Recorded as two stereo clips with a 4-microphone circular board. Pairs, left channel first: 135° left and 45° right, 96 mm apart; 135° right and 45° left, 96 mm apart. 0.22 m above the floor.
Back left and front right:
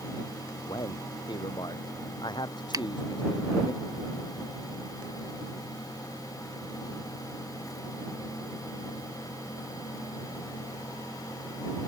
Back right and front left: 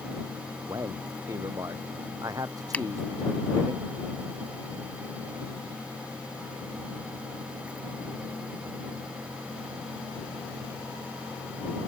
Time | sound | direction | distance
0.7 | a man speaking | 95° left | ?
2.7 | a finger snap | 65° right | ?